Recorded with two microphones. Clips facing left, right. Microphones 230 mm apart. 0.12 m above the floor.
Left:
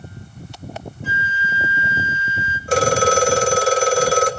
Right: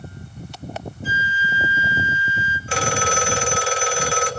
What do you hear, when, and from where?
1.0 s a flute: 60° left (ahead or behind), 1.9 m
2.7 s a phone ringing: 45° left (ahead or behind), 1.5 m